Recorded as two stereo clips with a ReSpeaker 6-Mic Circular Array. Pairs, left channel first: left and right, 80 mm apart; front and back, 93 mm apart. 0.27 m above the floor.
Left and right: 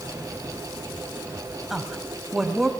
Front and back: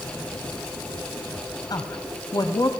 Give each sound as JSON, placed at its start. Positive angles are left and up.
{"t": 1.7, "sound": "a woman speaking", "azimuth_deg": -5, "distance_m": 1.5}